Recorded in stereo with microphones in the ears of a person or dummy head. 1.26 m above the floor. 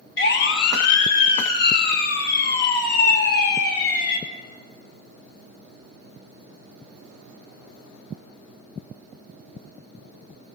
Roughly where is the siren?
Left.